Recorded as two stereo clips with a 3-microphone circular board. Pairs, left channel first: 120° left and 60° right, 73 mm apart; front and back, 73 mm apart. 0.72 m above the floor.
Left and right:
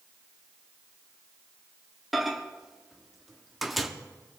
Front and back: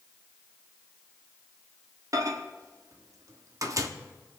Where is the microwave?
150° right, 0.7 m.